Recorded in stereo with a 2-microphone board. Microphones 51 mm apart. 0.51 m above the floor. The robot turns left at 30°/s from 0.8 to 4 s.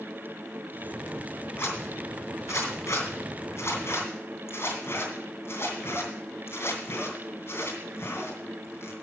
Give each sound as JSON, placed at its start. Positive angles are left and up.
{"t": 1.6, "sound": "a zipper", "side_deg": 50, "distance_m": 3.0}